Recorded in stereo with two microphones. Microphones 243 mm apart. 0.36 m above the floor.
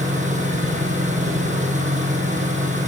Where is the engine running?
30° right (ahead or behind), 5.5 m.